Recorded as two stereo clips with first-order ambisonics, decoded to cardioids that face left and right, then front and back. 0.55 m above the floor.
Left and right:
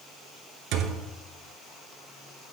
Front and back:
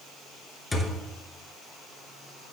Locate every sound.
0.7 s a thud: 80° right, 0.8 m